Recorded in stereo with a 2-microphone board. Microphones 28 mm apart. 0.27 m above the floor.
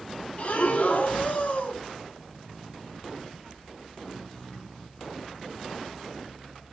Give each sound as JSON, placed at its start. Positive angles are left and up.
{"t": 0.4, "sound": "breathing", "side_deg": 55, "distance_m": 0.6}